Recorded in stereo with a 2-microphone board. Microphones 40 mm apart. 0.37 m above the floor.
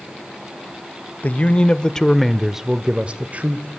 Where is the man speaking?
40° left (ahead or behind), 1.3 m; by 3.7 s 40° right (ahead or behind), 1.5 m.